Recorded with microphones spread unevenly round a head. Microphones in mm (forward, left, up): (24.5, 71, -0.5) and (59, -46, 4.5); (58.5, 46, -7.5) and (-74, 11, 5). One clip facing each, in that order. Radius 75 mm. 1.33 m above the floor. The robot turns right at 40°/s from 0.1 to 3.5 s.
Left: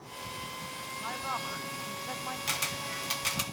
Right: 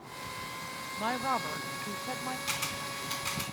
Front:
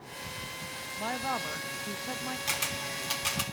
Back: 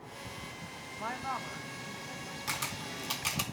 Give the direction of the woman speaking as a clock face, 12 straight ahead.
2 o'clock.